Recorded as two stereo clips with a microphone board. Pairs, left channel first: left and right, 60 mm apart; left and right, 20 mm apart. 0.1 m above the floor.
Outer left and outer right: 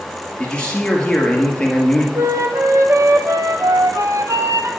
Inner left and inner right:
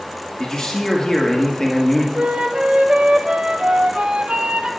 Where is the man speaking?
15° left (ahead or behind), 1.7 m.